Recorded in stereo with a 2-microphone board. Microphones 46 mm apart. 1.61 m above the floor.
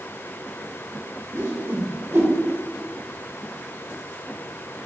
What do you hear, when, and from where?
1.3 s a whoosh: 55° right (ahead or behind), 1.8 m